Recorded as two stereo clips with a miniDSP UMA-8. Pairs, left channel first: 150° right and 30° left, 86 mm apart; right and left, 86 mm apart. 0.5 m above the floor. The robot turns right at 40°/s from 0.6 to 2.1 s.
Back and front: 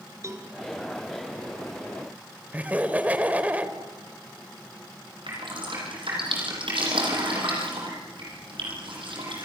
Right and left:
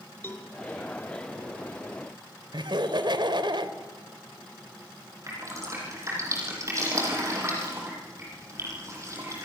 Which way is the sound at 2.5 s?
100° left.